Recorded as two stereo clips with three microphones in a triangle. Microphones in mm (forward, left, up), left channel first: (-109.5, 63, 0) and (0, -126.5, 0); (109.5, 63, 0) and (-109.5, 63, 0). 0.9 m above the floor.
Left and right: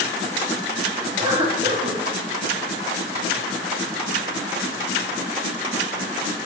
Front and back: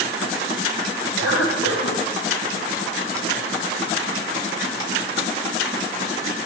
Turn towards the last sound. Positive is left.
turn(degrees=5)